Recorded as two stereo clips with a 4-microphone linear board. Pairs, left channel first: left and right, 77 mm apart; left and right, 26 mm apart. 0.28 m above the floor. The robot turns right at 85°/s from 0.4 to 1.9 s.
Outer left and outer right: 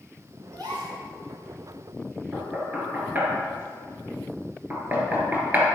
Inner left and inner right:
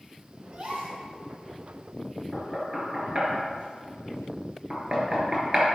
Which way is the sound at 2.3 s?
20° right (ahead or behind).